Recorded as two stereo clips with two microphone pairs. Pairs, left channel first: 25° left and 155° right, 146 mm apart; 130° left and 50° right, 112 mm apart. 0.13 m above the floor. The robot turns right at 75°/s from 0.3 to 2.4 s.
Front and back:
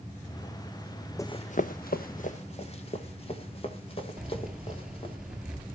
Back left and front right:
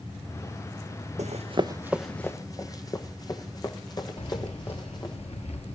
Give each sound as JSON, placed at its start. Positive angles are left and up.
{"t": 1.2, "sound": "running footsteps", "azimuth_deg": -45, "distance_m": 0.6}
{"t": 4.2, "sound": "keys jangling", "azimuth_deg": 125, "distance_m": 2.0}